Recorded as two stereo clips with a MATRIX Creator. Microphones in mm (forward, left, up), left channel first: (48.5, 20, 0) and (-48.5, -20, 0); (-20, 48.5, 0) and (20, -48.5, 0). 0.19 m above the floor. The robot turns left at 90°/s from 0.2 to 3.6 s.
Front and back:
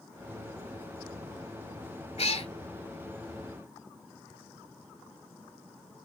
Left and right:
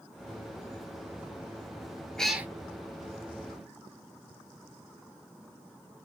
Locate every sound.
2.2 s a cat meowing: 30° left, 1.0 m; by 2.5 s 5° left, 1.0 m